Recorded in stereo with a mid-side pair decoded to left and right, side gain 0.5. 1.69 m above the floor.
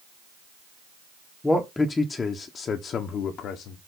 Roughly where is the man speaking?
Ahead.